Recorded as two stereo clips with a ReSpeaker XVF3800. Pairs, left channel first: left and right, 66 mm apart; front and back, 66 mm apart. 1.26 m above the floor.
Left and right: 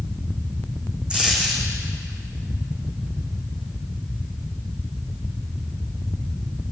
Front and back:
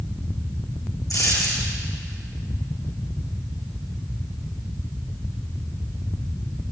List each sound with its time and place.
1.1 s a dropped coin: 15° right, 4 m